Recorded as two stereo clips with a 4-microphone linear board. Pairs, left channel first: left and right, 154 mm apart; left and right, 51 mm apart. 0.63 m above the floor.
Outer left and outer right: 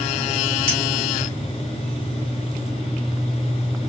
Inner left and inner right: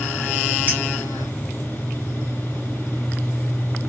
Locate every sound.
0.7 s a clink: 35° right (ahead or behind), 1.8 m